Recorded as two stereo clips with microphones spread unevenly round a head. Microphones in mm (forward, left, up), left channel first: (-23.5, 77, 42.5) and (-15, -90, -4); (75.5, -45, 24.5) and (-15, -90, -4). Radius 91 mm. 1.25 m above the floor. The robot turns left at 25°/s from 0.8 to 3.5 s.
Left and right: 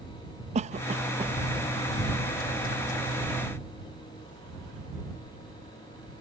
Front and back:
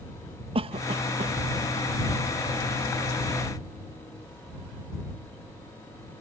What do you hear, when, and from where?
0.6 s a cough: 135° right; by 1.4 s 150° right